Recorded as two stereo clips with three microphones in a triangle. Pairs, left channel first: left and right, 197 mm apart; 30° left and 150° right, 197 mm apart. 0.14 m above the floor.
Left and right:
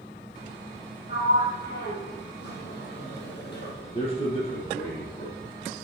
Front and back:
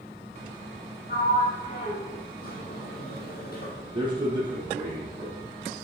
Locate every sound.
1.1 s a sliding door: 65° left, 3 m
3.9 s a man speaking: 145° left, 4 m